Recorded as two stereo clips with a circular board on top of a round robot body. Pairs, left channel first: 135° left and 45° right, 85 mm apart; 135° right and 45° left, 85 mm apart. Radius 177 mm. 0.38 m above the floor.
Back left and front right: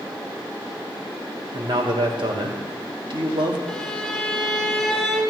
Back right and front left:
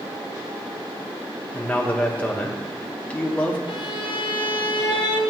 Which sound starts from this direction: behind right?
A violin, at 3.7 s.